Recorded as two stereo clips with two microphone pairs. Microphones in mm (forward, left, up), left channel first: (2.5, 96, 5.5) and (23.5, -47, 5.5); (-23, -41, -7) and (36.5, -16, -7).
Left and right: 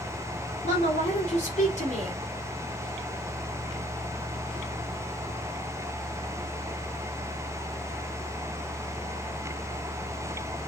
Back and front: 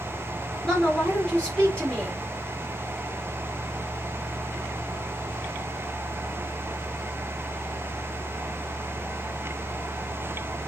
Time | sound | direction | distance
0.6 | a woman speaking | 135° left | 5 m